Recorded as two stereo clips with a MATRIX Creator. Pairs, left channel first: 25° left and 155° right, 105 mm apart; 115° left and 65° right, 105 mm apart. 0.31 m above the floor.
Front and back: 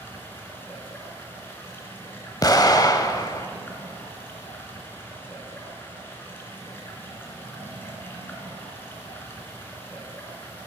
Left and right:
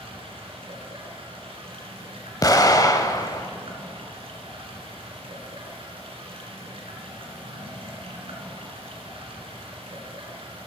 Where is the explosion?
70° left, 0.6 m.